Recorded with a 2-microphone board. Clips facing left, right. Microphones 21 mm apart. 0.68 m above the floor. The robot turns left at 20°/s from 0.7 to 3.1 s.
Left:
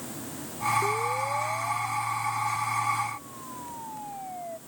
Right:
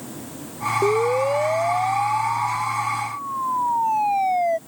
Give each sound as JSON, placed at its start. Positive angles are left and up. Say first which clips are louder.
{"t": 0.8, "sound": "a siren", "louder": "right 8 dB", "side_deg": -75}